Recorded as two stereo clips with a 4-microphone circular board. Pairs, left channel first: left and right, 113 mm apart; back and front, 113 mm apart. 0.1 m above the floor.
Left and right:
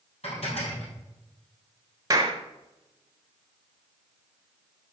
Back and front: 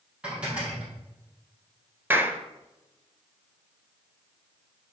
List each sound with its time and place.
0.2 s dishes clattering: 80° left, 2.5 m
2.1 s a clap: 60° right, 1.0 m